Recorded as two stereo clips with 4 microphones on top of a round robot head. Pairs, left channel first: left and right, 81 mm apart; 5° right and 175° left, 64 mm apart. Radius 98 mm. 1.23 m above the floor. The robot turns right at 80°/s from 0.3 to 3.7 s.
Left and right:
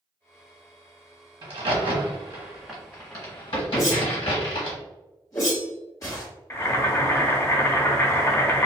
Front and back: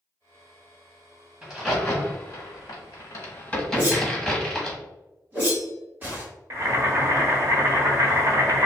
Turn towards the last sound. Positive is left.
turn(degrees=140)